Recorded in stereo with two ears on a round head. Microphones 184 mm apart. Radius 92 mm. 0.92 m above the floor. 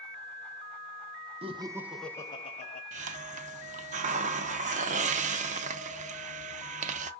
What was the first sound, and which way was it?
Laughter, 30° right (ahead or behind).